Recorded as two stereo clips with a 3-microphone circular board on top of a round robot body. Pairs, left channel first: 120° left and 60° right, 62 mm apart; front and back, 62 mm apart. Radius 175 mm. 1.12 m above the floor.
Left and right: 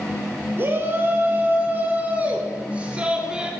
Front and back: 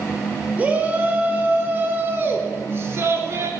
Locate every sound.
0.6 s a shout: 115° right, 4.5 m; by 3.5 s 135° right, 3.5 m